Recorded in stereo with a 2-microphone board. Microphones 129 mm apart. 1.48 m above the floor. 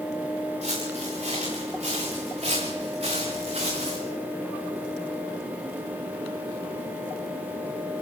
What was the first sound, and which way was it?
Footsteps, 55° right (ahead or behind).